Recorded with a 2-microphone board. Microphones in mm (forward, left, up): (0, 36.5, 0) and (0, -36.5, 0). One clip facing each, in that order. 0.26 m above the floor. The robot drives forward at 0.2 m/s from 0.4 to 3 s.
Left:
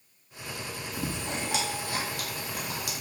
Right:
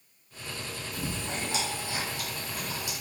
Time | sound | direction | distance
0.9 | chewing | 65° left (ahead or behind) | 1.0 m